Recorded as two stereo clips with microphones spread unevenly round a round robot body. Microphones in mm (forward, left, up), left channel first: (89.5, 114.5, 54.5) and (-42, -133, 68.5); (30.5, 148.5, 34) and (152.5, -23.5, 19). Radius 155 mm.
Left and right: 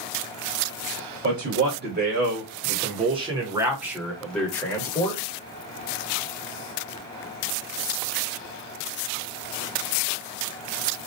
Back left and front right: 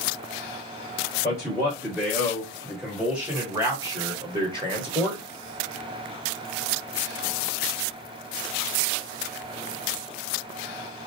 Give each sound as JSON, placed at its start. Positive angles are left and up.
{"t": 1.2, "sound": "a man speaking", "azimuth_deg": -160, "distance_m": 1.5}